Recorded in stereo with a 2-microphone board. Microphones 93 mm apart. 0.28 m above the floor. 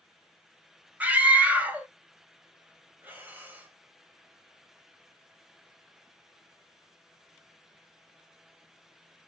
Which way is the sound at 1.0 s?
20° right (ahead or behind).